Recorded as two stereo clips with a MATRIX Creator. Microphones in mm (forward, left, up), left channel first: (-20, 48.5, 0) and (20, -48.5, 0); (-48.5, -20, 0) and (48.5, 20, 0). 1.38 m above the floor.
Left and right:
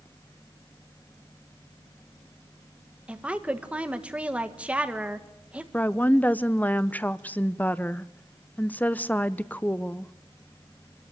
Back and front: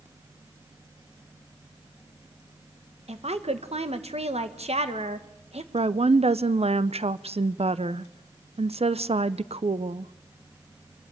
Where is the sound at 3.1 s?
10° left, 1.5 m.